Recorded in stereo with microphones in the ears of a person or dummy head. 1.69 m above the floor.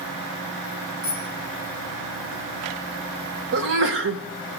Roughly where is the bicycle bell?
Right.